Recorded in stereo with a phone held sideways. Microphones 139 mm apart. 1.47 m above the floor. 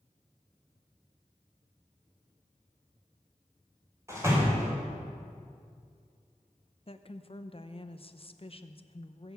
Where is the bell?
I don't hear a bell.